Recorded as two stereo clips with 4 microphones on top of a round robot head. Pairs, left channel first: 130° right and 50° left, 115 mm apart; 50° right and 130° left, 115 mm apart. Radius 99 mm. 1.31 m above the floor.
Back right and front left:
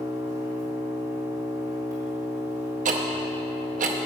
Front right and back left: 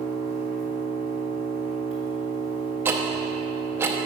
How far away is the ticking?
About 0.6 m.